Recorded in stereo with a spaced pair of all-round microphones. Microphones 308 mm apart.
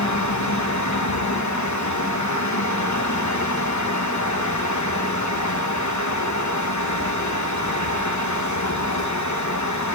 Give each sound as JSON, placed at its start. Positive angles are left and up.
{"t": 0.0, "sound": "a fan", "side_deg": 65, "distance_m": 1.2}